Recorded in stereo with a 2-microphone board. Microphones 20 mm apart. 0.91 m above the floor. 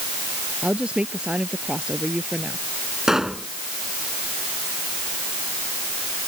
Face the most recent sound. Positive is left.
turn(degrees=-25)  # may be behind; listen again after turning